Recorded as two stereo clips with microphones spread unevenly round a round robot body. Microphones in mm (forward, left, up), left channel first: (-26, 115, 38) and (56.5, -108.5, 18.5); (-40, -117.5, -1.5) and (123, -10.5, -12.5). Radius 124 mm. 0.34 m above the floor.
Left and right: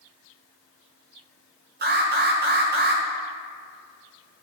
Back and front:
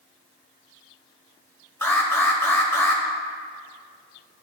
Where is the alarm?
70° right, 1.2 m.